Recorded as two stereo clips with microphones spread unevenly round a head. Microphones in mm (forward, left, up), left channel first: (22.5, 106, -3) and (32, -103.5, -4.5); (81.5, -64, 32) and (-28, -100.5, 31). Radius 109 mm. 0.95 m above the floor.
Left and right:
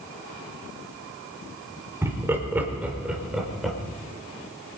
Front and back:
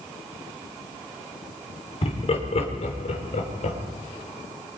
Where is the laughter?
10° right, 4 m; by 3.8 s 5° left, 4.5 m.